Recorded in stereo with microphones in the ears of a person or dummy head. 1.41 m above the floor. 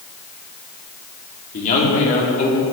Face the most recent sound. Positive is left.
turn(degrees=35)  # may be behind; listen again after turning